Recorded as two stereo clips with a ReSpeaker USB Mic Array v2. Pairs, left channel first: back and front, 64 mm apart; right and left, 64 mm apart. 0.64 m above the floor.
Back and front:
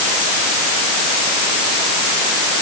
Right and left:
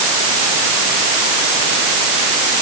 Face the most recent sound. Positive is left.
No sound to turn to.